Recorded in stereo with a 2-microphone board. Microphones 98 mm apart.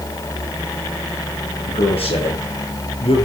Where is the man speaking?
80° left, 8 m; by 3.2 s 75° left (ahead or behind), 6.5 m.